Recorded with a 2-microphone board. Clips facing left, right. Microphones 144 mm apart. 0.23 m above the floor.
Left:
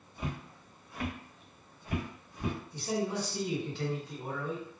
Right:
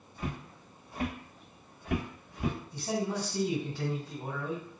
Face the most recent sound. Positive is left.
turn(degrees=-40)  # may be behind; listen again after turning